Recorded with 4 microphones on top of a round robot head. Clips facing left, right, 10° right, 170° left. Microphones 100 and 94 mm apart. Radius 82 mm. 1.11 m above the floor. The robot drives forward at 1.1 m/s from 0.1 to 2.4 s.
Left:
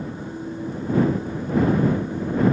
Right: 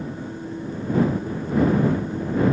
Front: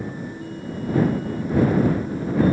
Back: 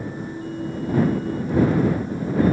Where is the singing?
I don't hear singing.